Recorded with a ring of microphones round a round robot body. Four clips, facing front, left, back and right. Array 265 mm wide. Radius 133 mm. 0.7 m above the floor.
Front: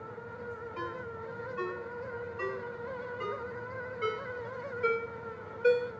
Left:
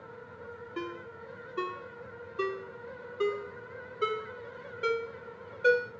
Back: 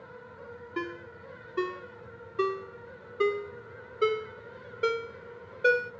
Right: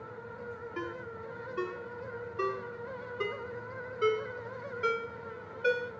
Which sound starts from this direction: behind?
A ringtone, at 0.8 s.